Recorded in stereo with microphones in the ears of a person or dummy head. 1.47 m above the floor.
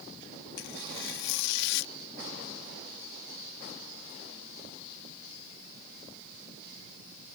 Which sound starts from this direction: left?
Tearing paper, at 0.6 s.